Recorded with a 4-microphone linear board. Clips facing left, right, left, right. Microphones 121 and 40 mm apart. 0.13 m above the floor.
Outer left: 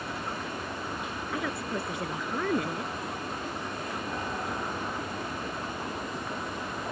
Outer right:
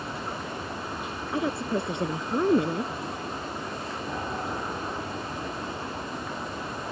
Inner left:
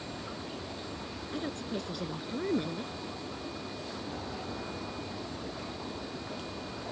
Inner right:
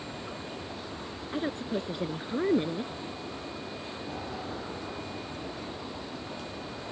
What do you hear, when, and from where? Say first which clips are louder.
0.0 s an aircraft: outer right 1 dB, inner right 1 dB; 10° right (ahead or behind)
1.3 s a woman speaking: outer right 6 dB, inner right 5 dB; 25° right (ahead or behind)